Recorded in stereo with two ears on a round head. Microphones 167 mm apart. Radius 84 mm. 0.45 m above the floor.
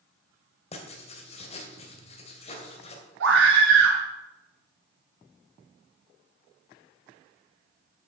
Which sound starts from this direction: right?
A scream, at 3.2 s.